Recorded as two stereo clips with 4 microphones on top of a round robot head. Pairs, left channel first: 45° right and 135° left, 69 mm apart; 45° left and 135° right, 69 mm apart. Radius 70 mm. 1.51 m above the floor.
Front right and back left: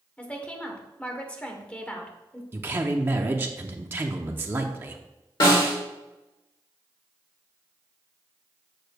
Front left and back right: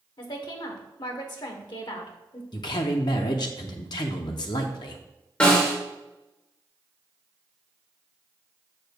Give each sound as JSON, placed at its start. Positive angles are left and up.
{"t": 0.2, "sound": "a woman speaking", "azimuth_deg": 30, "distance_m": 1.0}
{"t": 2.5, "sound": "a man speaking", "azimuth_deg": 75, "distance_m": 0.6}
{"t": 5.4, "sound": "a snare drum", "azimuth_deg": -30, "distance_m": 2.0}